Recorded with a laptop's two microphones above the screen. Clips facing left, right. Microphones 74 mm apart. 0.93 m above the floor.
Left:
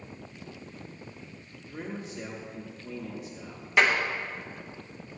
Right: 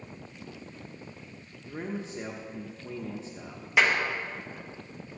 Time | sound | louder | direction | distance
1.7 | a man speaking | right 2 dB | 30° right (ahead or behind) | 1.1 m
3.8 | a clap | left 1 dB | centre (ahead or behind) | 1.0 m